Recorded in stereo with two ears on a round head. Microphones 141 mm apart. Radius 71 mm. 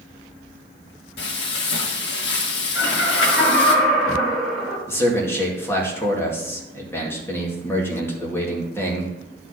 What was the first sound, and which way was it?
Frying, 80° left.